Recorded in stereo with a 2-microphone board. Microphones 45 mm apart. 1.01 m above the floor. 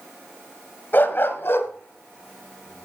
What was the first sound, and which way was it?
A dog barking, 45° left (ahead or behind).